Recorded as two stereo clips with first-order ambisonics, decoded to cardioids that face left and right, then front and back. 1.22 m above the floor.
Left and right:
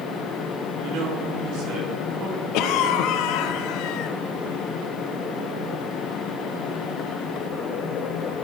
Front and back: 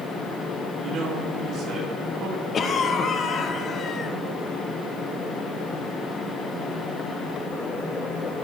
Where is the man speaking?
115° right, 2.5 m; by 2.4 s 140° right, 2.5 m.